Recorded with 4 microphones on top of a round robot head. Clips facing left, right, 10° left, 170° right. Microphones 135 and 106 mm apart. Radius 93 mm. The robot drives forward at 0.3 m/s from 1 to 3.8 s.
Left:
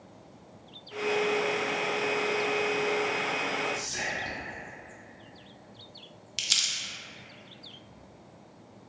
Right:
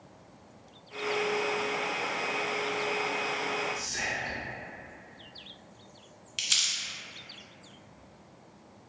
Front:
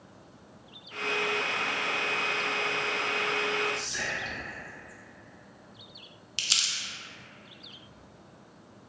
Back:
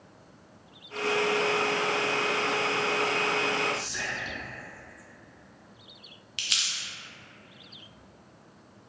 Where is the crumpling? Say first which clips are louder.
Even, even; 55° left, 0.5 m.